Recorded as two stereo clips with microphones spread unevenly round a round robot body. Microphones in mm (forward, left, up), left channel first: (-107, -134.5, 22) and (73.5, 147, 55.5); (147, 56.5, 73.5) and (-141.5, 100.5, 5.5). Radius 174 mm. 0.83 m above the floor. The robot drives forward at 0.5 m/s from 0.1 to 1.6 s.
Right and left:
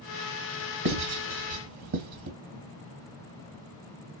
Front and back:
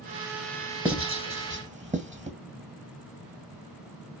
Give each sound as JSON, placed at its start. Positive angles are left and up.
{"t": 0.8, "sound": "writing", "azimuth_deg": 95, "distance_m": 2.5}